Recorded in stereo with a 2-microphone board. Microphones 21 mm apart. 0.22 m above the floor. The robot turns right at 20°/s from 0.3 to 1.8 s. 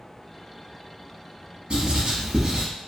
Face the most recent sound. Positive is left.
turn(degrees=-50)  # may be behind; listen again after turning